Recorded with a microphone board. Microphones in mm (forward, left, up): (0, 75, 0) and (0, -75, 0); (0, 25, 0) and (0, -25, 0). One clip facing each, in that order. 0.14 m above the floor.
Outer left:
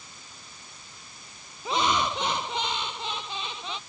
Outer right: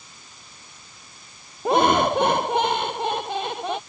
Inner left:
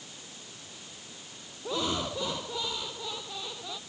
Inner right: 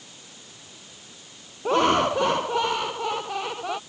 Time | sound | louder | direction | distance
1.6 | laughter | outer right 8 dB, inner right 12 dB | 55° right (ahead or behind) | ?